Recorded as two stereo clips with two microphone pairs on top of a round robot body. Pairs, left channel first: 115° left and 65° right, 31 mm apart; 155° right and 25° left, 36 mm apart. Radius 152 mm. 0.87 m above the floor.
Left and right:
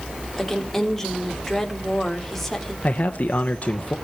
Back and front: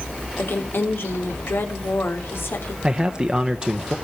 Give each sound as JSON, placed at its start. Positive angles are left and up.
{"t": 0.4, "sound": "a woman speaking", "azimuth_deg": -160, "distance_m": 3.0}
{"t": 2.8, "sound": "a man speaking", "azimuth_deg": 90, "distance_m": 0.9}